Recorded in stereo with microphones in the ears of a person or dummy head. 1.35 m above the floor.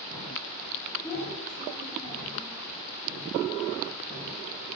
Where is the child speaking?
5° left (ahead or behind), 1.8 m.